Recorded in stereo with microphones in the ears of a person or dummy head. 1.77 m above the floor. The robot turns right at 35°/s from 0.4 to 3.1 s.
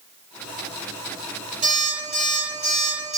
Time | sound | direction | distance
1.6 | an alarm clock | 15° right (ahead or behind) | 0.8 m